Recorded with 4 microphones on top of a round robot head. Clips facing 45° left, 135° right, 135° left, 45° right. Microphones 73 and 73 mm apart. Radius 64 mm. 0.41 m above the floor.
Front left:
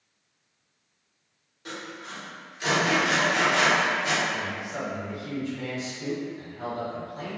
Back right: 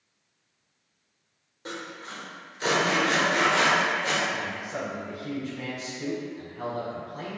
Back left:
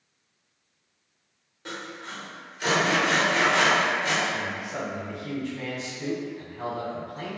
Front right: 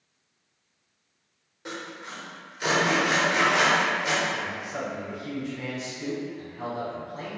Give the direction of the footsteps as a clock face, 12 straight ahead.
No footsteps in this recording.